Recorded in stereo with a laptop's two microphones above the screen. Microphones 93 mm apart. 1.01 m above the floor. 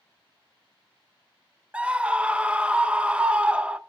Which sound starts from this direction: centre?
A scream, at 1.7 s.